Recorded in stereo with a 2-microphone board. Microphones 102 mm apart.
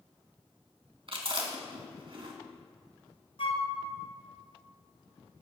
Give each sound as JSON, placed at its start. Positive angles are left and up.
{"t": 1.1, "sound": "chewing", "side_deg": -55, "distance_m": 2.0}
{"t": 3.4, "sound": "a flute", "side_deg": 60, "distance_m": 1.2}